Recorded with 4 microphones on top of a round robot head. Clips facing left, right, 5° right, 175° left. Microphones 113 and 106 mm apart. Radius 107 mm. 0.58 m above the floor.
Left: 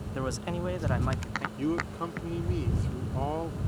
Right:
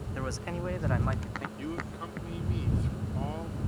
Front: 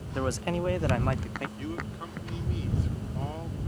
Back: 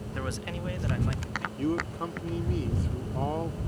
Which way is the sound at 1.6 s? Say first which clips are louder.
Left 10 dB, back 7 dB; 135° left.